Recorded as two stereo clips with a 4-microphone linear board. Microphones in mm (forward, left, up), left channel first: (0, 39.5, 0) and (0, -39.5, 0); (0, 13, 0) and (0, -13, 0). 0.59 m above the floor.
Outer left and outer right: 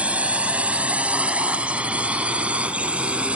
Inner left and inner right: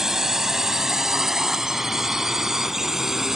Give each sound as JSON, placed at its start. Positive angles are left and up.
{"t": 0.0, "sound": "a drone", "side_deg": -15}